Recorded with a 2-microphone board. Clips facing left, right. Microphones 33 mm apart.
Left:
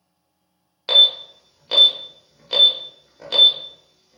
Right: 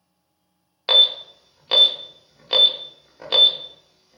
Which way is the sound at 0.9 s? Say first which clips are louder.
Left 1 dB; 20° right (ahead or behind).